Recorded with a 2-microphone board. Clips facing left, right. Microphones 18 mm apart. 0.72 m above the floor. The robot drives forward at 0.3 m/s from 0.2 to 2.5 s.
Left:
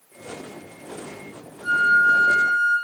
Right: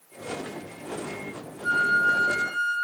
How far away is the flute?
About 1.1 m.